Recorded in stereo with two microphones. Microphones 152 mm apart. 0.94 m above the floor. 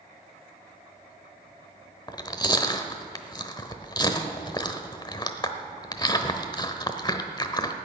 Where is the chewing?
25° left (ahead or behind), 0.9 m.